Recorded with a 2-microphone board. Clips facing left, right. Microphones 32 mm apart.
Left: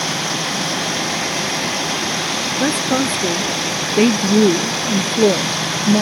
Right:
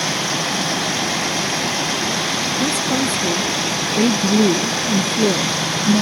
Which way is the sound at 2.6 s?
40° left (ahead or behind).